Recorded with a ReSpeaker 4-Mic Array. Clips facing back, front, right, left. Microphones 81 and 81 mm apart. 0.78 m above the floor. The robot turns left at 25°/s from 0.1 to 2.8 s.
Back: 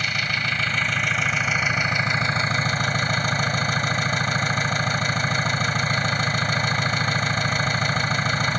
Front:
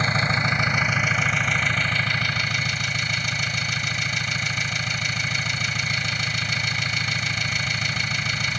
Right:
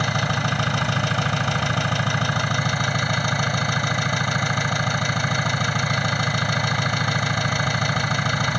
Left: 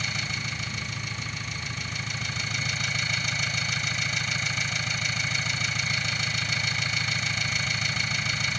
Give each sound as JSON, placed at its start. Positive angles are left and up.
{"t": 0.0, "sound": "an engine running", "azimuth_deg": -60}